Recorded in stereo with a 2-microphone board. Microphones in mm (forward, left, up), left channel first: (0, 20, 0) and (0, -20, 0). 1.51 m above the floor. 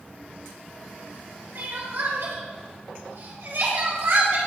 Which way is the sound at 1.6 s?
75° right (ahead or behind).